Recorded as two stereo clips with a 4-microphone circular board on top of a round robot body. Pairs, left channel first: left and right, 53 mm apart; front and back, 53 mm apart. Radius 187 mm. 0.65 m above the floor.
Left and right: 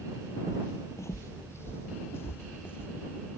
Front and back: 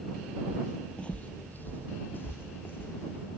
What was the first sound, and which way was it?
Footsteps, 120° left.